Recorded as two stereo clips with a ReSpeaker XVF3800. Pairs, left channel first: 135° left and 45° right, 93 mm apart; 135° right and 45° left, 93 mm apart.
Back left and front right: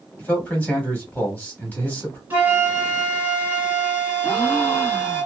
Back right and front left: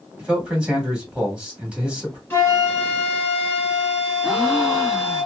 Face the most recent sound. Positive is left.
turn(degrees=145)